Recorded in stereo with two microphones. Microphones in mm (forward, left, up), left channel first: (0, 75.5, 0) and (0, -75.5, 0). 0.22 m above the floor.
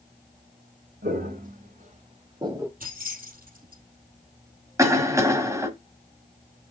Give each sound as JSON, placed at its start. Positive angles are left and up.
{"t": 1.0, "sound": "footsteps", "side_deg": -75, "distance_m": 3.0}
{"t": 2.8, "sound": "keys jangling", "side_deg": -70, "distance_m": 4.0}
{"t": 4.8, "sound": "a cough", "side_deg": -20, "distance_m": 1.4}